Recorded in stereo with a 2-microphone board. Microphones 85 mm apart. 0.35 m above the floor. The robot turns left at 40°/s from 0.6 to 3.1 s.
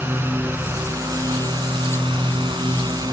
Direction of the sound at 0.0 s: 25° right (ahead or behind).